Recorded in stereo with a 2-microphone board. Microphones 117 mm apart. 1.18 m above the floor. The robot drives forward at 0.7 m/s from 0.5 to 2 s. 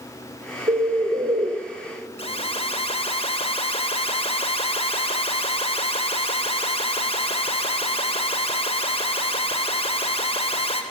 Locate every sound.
0.7 s a bird: 90° right, 3.5 m; by 1.5 s 80° right, 3.5 m
2.2 s an alarm: 55° left (ahead or behind), 3 m